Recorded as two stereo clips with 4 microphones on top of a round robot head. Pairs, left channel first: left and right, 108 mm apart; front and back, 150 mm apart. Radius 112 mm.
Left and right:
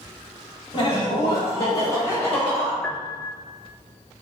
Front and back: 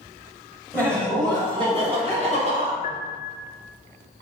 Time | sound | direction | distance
0.7 | laughter | 110° left | 1.3 m
2.8 | a piano | 10° left | 0.6 m